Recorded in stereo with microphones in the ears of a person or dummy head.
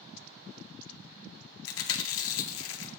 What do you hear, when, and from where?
1.6 s chewing: 75° left (ahead or behind), 0.9 m